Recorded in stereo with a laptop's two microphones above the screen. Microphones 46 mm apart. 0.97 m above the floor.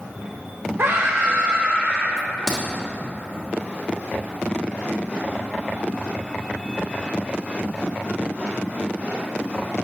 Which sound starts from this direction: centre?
A crack, at 2.2 s.